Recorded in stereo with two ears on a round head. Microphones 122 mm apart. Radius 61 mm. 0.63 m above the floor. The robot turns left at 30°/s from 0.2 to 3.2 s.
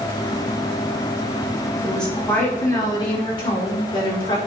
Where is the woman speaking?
Straight behind, 4.5 m; by 4.4 s 140° left, 4.5 m.